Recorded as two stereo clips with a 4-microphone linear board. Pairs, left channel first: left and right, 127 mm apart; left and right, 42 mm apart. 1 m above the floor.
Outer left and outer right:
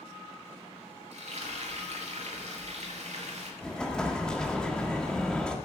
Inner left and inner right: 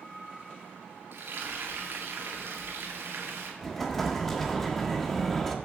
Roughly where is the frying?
Right.